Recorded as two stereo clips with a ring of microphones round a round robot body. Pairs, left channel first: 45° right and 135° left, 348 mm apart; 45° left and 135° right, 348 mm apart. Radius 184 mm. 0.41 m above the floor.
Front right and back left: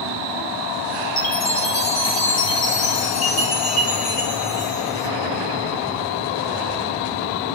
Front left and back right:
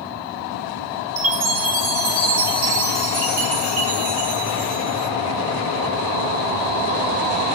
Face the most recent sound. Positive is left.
turn(degrees=-90)